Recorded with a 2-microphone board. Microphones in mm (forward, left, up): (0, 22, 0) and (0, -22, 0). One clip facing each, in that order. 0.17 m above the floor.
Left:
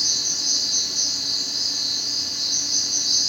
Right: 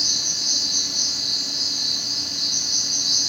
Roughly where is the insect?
Left.